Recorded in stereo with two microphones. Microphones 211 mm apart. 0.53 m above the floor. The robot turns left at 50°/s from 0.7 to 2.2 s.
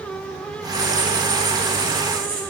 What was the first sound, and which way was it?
Writing, 40° right.